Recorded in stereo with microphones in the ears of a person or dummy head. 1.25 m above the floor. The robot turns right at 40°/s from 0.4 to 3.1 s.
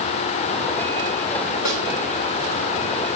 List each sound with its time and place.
1.6 s a snare drum: 80° left, 5.5 m; by 1.8 s 75° left (ahead or behind), 5.5 m